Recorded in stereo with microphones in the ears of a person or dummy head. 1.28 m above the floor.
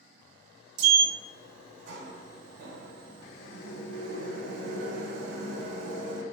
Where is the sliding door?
60° right (ahead or behind), 0.6 m.